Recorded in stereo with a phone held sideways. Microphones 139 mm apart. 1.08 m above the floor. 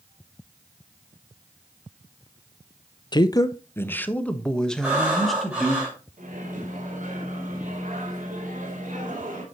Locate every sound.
3.1 s a man speaking: 30° left (ahead or behind), 0.5 m; by 5.8 s centre (ahead or behind), 1.6 m
4.8 s breathing: 10° right (ahead or behind), 4.5 m
6.2 s a microwave: 75° right (ahead or behind), 2.5 m